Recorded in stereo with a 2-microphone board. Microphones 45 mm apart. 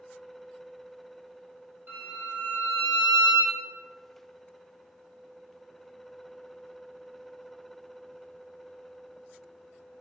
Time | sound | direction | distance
1.9 | a violin | 55° right (ahead or behind) | 0.9 m